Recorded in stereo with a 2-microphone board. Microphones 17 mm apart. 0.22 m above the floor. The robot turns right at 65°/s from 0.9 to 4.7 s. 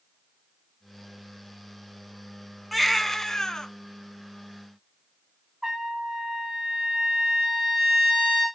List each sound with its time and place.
2.7 s a baby crying: straight ahead, 1.0 m; by 3.7 s 60° left, 1.0 m
5.6 s a trumpet: 35° right (ahead or behind), 5.5 m